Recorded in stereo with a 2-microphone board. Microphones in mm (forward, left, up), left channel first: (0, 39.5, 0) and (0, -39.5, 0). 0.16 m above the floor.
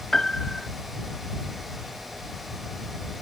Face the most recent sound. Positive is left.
turn(degrees=5)  # may be behind; listen again after turning